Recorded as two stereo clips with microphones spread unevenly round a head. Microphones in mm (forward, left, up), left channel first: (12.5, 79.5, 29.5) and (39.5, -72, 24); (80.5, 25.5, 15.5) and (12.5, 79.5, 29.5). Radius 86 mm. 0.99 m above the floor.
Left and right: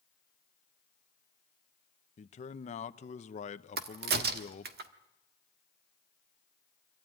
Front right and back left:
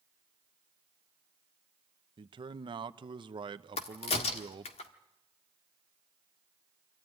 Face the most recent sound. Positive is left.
turn(degrees=-60)